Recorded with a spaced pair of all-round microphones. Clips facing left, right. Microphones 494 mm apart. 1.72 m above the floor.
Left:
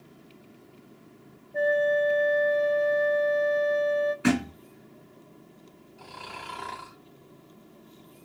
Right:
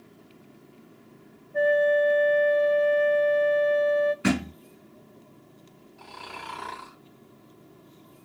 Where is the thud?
35° right (ahead or behind), 2 m.